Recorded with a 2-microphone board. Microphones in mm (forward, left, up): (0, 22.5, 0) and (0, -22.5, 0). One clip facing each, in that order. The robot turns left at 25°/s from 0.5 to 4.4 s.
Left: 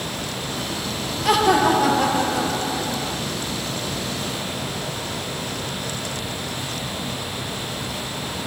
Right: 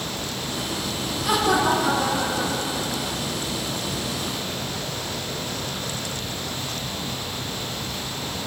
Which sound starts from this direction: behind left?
Laughter, at 1.2 s.